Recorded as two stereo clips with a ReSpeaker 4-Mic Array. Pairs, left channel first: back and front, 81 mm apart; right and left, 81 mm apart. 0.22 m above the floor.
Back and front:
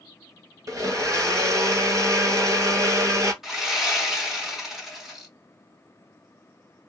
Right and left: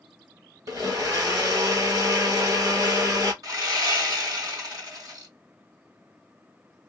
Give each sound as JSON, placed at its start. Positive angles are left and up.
{"t": 0.7, "sound": "a blender", "azimuth_deg": 50, "distance_m": 1.2}
{"t": 3.4, "sound": "sawing", "azimuth_deg": 85, "distance_m": 2.0}